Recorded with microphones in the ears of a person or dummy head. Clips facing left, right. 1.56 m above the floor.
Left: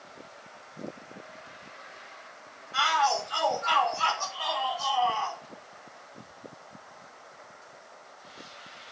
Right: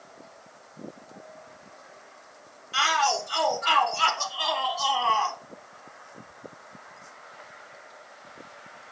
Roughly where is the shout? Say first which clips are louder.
Right 1 dB; right.